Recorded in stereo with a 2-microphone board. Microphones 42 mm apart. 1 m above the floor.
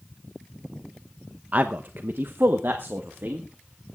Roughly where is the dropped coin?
No dropped coin in this recording.